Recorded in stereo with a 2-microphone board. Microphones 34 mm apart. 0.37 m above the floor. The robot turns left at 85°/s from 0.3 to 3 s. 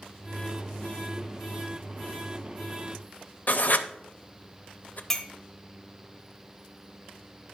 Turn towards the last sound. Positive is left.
turn(degrees=15)  # may be behind; listen again after turning